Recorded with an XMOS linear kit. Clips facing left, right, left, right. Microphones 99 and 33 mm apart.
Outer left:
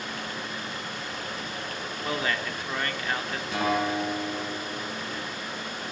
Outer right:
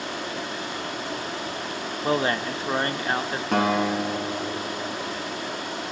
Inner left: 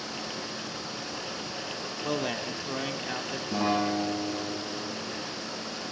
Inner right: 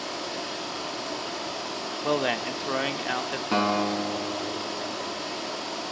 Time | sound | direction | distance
0.0 | running water | 85° right | 7.5 m
2.0 | a man speaking | 30° right (ahead or behind) | 1.2 m
3.5 | a guitar | 60° right (ahead or behind) | 6.5 m